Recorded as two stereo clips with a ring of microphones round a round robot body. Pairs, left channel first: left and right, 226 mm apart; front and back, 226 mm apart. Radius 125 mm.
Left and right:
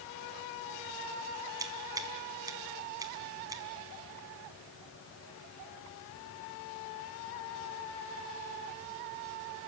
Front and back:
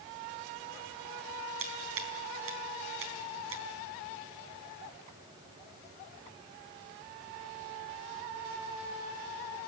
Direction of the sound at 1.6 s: 165° right.